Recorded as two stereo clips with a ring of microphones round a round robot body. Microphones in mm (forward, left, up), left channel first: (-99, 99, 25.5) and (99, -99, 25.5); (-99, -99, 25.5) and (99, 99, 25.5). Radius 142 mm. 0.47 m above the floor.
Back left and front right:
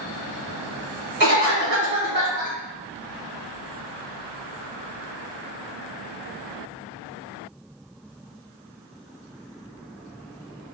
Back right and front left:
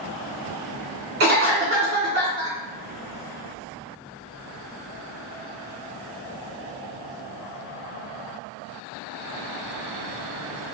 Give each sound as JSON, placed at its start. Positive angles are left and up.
{"t": 1.2, "sound": "a cough", "azimuth_deg": 0, "distance_m": 1.7}